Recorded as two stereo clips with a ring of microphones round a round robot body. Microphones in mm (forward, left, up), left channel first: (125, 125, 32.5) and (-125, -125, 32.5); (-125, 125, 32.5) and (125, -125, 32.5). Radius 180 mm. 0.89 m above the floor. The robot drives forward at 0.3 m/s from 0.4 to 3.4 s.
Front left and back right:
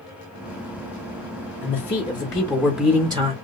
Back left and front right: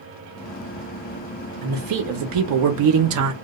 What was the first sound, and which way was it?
A man speaking, 25° right.